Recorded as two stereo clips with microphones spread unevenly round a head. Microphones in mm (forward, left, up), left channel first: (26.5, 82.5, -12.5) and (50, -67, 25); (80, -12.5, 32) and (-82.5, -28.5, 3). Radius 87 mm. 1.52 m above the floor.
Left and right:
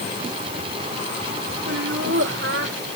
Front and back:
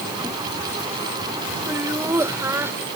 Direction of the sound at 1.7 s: 95° right.